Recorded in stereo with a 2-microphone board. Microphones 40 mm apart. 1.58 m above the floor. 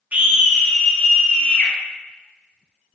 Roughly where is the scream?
Right.